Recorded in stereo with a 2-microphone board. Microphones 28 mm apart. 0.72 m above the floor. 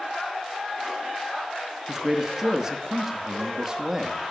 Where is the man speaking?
20° right (ahead or behind), 1.0 m.